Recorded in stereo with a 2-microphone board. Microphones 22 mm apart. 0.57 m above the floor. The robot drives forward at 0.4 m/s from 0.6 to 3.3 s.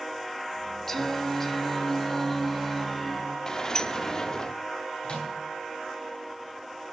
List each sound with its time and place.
0.9 s singing: 20° left (ahead or behind), 0.8 m; by 3.4 s 10° left (ahead or behind), 1.4 m
3.5 s a sliding door: 30° left (ahead or behind), 0.7 m
5.0 s a microwave: 55° left (ahead or behind), 4 m